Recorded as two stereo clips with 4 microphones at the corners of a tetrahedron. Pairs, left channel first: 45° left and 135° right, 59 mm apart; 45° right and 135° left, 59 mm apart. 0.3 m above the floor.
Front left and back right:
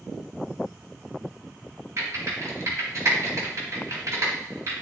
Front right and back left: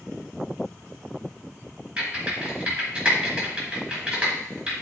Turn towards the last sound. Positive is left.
turn(degrees=-160)